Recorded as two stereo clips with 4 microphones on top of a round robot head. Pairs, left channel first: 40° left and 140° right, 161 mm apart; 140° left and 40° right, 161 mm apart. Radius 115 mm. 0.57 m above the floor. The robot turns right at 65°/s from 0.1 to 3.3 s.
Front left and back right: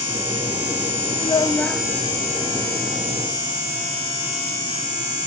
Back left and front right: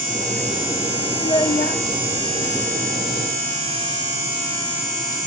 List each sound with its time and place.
1.2 s a child speaking: 85° left, 0.8 m; by 1.8 s 130° left, 0.8 m